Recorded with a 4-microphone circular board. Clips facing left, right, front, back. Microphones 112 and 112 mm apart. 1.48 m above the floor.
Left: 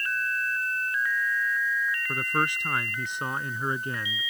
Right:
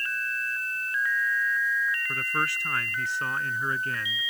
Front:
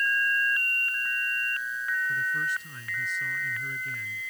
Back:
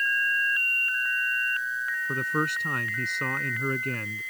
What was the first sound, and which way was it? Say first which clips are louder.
A man speaking: left 2 dB, back 2 dB; 160° left.